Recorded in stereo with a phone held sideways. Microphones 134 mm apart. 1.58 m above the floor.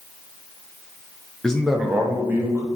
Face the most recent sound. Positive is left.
turn(degrees=-20)  # may be behind; listen again after turning